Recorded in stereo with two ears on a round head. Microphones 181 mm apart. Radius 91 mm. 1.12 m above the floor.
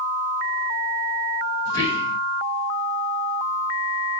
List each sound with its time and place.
1.6 s whispering: 15° left (ahead or behind), 7 m